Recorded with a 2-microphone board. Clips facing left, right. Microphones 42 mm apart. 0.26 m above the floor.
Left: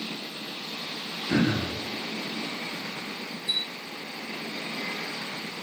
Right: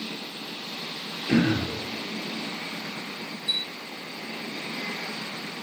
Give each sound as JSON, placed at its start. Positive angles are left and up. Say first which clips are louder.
{"t": 1.3, "sound": "throat clearing", "louder": "right 2 dB", "side_deg": -30, "distance_m": 7.5}
{"t": 3.5, "sound": "a chime", "louder": "right 1 dB", "side_deg": 35, "distance_m": 4.0}